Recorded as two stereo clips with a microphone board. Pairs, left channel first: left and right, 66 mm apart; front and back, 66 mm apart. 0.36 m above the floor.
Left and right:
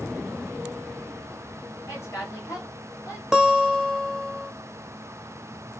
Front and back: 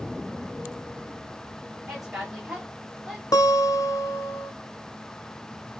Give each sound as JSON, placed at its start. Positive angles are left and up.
{"t": 1.9, "sound": "a woman speaking", "azimuth_deg": 90, "distance_m": 1.7}
{"t": 3.3, "sound": "a guitar", "azimuth_deg": -10, "distance_m": 0.7}